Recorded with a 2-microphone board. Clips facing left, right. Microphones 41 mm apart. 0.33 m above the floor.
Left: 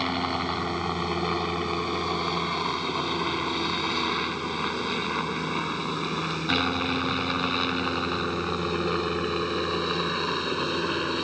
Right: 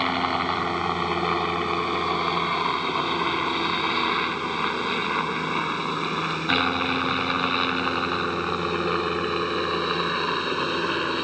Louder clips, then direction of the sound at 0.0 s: Right 4 dB; 20° right (ahead or behind).